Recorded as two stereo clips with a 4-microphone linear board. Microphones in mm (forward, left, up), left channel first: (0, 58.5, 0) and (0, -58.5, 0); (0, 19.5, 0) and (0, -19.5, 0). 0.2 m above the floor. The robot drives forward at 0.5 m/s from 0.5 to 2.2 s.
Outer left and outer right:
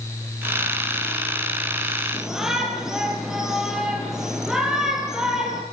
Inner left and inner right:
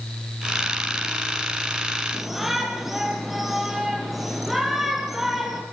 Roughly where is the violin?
No violin in this recording.